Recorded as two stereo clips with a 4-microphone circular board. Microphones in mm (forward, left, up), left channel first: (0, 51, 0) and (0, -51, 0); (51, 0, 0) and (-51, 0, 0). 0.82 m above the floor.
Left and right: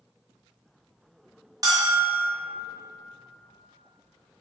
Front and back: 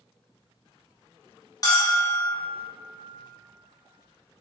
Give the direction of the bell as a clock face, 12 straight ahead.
2 o'clock.